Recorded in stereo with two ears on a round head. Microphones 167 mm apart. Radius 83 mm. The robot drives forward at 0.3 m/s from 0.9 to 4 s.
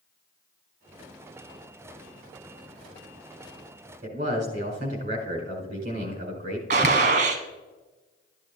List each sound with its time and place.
4.0 s a man speaking: 40° right (ahead or behind), 4.5 m
6.7 s a gunshot: 45° right (ahead or behind), 1.4 m